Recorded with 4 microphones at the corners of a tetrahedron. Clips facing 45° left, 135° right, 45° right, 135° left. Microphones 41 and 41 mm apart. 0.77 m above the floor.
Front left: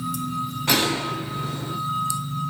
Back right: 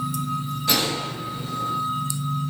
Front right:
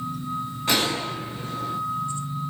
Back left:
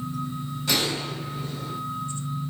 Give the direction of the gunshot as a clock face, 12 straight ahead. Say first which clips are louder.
Front left 2 dB, front right 2 dB; 12 o'clock.